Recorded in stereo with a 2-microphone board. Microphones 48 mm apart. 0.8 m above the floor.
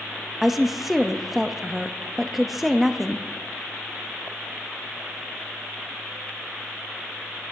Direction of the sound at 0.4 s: Centre (ahead or behind).